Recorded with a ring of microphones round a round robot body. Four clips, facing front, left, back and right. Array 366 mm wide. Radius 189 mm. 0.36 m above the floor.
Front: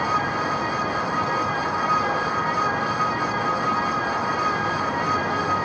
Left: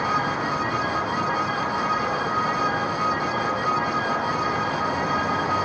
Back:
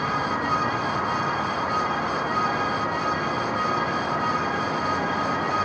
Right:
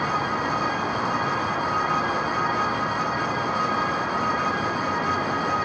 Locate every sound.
Only background noise.